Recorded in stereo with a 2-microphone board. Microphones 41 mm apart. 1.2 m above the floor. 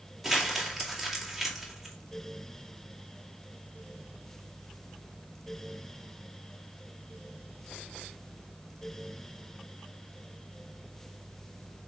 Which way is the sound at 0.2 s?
Centre (ahead or behind).